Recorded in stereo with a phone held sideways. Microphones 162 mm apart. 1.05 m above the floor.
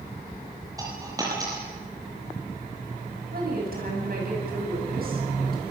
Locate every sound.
0.8 s a dropped coin: 20° right (ahead or behind), 7 m
3.3 s a woman speaking: 65° right (ahead or behind), 9 m